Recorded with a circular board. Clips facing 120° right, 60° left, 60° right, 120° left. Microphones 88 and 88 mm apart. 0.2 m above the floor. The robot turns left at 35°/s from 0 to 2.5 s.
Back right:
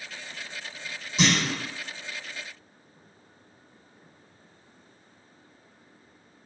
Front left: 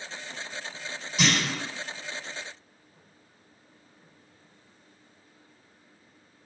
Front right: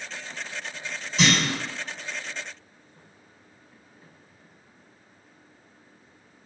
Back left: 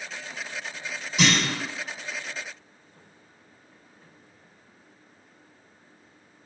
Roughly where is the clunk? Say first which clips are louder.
Back right 2 dB, even; behind.